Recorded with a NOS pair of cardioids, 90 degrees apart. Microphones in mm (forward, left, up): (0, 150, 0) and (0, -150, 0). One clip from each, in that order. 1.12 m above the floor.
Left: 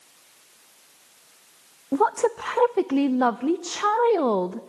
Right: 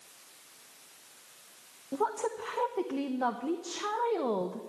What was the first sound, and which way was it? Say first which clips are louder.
A woman speaking: left 10 dB; 40° left.